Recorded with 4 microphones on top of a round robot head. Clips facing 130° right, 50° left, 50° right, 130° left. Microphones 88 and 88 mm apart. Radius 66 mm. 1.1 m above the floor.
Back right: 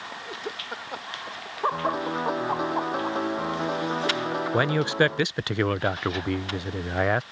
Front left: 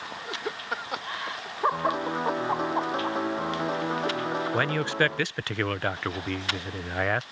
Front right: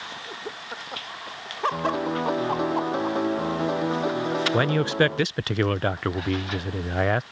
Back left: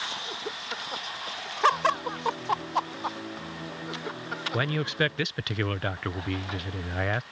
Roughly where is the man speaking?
Right.